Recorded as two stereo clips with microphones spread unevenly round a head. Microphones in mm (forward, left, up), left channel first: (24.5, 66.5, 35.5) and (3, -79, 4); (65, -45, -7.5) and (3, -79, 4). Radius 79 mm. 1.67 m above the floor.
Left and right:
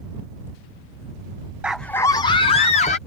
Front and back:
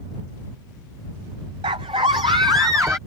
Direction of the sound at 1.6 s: Straight behind.